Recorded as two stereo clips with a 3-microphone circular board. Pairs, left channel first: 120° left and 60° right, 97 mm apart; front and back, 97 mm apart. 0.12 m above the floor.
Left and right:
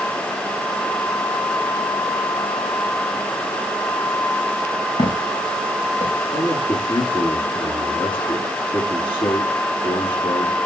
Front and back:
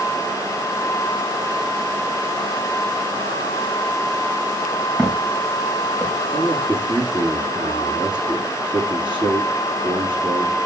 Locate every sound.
5.0 s footsteps: 110° left, 4.5 m; by 6.1 s 120° left, 6 m
6.3 s a man speaking: 150° left, 6.5 m